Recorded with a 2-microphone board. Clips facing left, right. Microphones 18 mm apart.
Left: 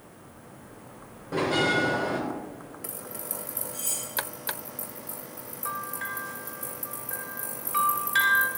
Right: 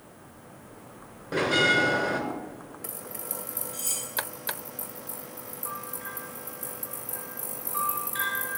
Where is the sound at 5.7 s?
45° left (ahead or behind), 1.8 m.